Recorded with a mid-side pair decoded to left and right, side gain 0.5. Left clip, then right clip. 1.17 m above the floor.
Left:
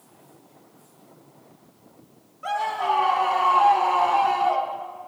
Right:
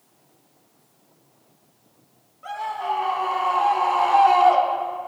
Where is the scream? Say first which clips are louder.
Left 3 dB; 30° left, 2.0 m; by 5.1 s 80° right, 1.1 m.